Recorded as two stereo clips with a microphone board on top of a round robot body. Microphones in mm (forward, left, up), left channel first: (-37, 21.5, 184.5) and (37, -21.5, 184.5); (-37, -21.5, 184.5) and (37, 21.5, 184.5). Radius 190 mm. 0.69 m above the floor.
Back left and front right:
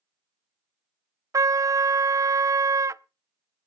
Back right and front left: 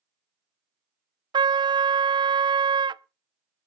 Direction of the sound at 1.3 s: 15° left.